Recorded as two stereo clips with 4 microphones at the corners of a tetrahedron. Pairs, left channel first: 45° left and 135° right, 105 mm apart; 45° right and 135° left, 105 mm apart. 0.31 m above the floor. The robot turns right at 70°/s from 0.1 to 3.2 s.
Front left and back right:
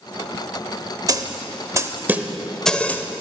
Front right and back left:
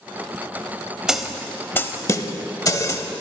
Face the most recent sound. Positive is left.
turn(degrees=0)